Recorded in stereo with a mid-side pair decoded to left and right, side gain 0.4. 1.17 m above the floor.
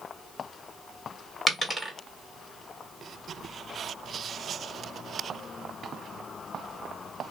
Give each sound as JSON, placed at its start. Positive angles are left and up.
{"t": 1.5, "sound": "a dropped coin", "azimuth_deg": -15, "distance_m": 1.7}